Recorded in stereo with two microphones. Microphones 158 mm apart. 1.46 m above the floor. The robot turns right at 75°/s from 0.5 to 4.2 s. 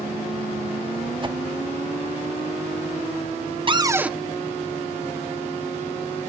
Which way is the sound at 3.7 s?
40° right.